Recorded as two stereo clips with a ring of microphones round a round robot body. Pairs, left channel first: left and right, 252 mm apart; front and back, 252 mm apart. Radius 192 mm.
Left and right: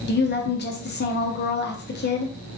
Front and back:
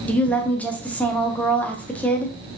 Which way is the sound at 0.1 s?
80° left.